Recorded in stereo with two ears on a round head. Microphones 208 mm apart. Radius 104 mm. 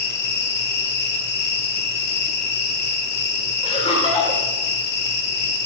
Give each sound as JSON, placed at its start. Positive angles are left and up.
{"t": 0.0, "sound": "an insect", "side_deg": 45, "distance_m": 2.5}
{"t": 3.6, "sound": "laughter", "side_deg": 25, "distance_m": 3.0}